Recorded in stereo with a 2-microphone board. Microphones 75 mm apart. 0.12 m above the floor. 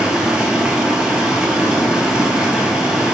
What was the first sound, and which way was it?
Running water, 15° right (ahead or behind).